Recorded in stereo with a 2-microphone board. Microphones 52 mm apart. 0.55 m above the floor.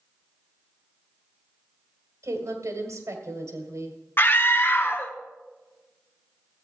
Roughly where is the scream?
Left.